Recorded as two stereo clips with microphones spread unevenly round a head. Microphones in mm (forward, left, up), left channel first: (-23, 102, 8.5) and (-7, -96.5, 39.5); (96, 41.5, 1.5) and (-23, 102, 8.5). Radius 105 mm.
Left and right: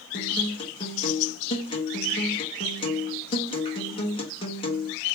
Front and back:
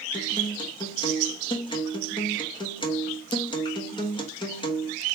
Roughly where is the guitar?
Ahead left.